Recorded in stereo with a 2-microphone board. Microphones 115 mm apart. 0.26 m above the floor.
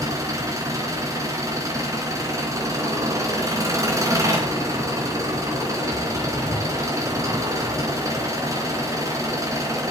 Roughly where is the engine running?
Right.